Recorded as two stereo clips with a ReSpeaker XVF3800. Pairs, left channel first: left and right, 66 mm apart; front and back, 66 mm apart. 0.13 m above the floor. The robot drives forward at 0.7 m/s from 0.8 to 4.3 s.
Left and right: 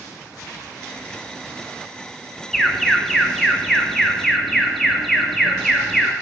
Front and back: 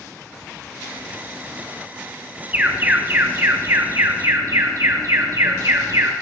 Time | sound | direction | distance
2.5 | an alarm | 170° left | 1.5 m